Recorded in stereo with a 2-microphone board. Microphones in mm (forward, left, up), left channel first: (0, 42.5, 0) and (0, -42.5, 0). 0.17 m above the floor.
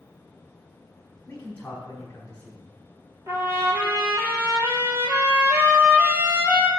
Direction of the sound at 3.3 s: 30° right (ahead or behind).